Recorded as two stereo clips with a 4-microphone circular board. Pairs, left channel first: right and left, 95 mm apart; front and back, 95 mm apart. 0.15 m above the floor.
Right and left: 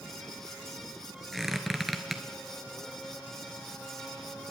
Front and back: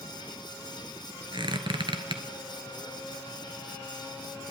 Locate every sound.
1.3 s a squeak: straight behind, 0.9 m